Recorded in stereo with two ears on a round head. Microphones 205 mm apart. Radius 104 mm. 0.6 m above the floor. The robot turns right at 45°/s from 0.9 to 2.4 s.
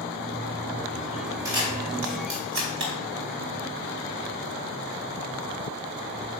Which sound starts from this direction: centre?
A camera shutter, at 1.4 s.